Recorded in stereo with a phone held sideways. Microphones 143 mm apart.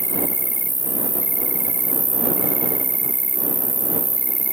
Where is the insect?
75° left (ahead or behind).